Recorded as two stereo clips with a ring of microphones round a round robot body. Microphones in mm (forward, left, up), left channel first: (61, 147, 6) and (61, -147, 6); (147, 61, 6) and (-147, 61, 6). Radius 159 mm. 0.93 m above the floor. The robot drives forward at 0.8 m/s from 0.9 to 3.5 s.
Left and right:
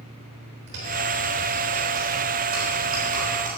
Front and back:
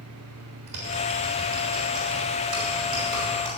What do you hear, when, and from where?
0.7 s typing on a keyboard: 145° right, 4 m; by 3.5 s 155° right, 5.5 m